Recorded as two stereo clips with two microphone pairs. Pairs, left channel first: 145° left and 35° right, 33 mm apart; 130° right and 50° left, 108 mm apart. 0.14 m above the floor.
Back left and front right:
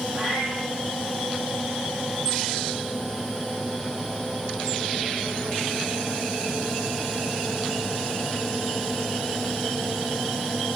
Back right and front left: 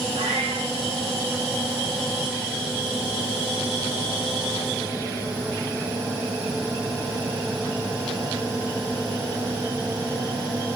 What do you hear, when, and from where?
0.1 s a cat meowing: 50° left, 2 m